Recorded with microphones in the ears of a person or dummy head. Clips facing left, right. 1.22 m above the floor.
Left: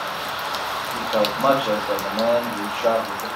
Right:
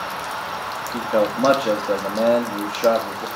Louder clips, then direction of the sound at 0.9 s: Right 3 dB; 25° right (ahead or behind).